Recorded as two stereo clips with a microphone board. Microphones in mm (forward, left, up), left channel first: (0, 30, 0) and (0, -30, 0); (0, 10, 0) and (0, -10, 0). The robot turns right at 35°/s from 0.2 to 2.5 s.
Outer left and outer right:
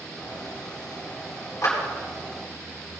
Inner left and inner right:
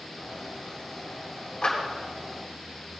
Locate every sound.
1.6 s a clap: 55° left (ahead or behind), 4.5 m; by 1.8 s 50° left (ahead or behind), 4.5 m